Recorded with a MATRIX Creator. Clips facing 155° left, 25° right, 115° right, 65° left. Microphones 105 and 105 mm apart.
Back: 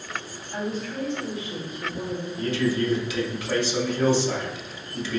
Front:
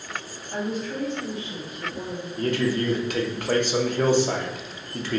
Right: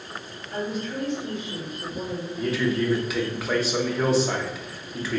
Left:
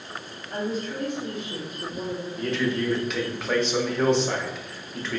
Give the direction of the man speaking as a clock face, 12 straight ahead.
1 o'clock.